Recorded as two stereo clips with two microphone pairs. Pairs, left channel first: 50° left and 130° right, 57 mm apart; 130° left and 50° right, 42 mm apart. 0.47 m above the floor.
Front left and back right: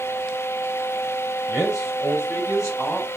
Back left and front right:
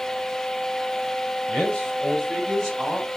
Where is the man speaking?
65° left, 2.5 m; by 3.1 s 40° left, 3 m.